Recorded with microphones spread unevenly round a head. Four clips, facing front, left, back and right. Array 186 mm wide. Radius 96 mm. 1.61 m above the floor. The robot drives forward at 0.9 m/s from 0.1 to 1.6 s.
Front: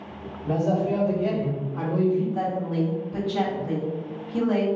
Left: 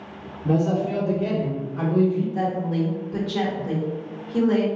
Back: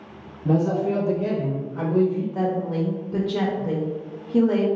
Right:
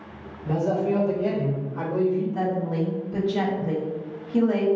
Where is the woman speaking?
175° right, 1.3 m.